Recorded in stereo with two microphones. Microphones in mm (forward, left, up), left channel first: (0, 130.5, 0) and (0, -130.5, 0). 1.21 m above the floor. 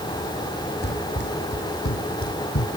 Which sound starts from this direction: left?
Running footsteps, at 0.8 s.